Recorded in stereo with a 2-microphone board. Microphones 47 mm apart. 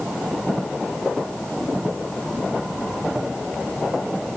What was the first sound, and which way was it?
Only background noise.